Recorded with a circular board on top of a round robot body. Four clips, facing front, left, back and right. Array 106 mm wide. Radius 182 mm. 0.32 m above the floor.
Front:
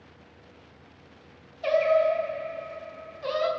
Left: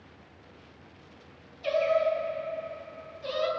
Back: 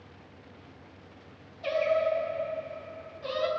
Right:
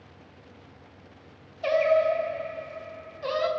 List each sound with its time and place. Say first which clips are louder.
1.6 s singing: right 3 dB, front 5 dB; 65° right, 3 m